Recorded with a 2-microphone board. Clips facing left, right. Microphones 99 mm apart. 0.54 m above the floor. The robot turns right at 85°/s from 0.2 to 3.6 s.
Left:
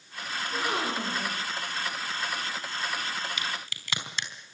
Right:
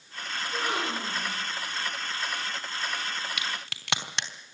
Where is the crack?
70° right (ahead or behind), 3.5 m; by 4.3 s 75° right (ahead or behind), 3.5 m.